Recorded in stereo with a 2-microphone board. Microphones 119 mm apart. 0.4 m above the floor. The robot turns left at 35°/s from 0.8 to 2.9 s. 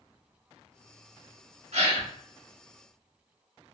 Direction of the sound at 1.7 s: 75° right (ahead or behind).